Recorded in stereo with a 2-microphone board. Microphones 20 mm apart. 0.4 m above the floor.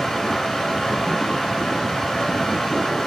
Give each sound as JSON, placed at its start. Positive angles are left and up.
{"t": 0.0, "sound": "running water", "side_deg": 25, "distance_m": 0.8}